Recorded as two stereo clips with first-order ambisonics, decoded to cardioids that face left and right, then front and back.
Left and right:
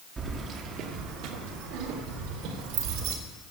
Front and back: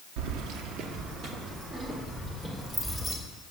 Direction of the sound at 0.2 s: 160° right.